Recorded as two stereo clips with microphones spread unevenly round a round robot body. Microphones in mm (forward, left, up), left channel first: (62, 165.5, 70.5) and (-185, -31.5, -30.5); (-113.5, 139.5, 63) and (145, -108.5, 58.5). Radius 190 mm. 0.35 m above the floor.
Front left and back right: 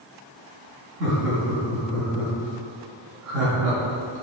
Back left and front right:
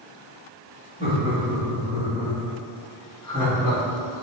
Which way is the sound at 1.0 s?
115° right.